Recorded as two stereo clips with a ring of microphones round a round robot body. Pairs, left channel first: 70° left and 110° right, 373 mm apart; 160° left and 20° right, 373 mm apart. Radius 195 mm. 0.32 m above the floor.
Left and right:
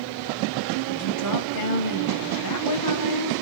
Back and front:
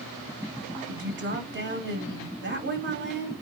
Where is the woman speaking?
35° left, 2 m.